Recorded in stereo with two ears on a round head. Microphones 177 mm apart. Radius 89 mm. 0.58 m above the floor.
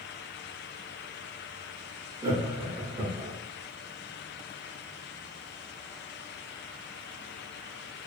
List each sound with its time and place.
2.2 s laughter: 25° right (ahead or behind), 0.8 m